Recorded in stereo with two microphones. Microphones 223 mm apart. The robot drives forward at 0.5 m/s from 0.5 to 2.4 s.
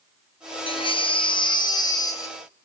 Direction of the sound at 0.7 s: 25° left (ahead or behind).